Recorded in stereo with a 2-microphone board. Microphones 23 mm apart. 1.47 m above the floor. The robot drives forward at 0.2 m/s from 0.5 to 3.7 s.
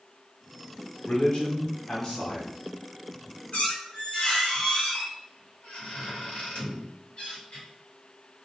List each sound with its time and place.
1.1 s a man speaking: 40° left (ahead or behind), 0.7 m; by 2.5 s 30° left (ahead or behind), 0.9 m
3.5 s a squeak: 55° left (ahead or behind), 1.2 m; by 7.7 s 50° left (ahead or behind), 1.2 m